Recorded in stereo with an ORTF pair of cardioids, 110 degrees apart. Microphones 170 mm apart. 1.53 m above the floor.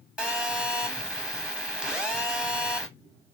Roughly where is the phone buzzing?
Ahead.